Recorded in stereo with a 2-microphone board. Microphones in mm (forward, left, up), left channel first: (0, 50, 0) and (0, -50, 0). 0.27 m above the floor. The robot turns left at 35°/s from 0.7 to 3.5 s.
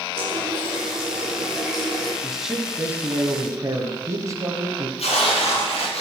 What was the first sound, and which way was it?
A running tap, 140° right.